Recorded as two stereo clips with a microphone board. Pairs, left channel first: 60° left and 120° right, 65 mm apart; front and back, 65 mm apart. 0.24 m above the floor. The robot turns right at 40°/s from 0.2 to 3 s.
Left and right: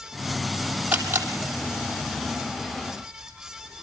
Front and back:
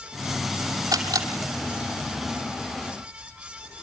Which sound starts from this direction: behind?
A camera shutter, at 0.9 s.